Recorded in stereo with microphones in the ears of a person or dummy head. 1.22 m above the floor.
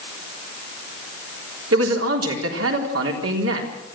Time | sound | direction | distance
1.7 | a man speaking | 85° right | 3.5 m